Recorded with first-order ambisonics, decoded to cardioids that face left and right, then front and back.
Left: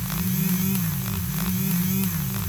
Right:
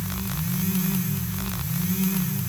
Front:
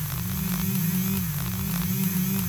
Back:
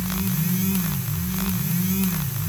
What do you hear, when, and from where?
Only background noise.